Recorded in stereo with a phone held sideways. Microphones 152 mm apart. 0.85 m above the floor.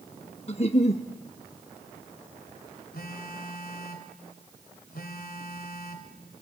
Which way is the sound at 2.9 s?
80° left.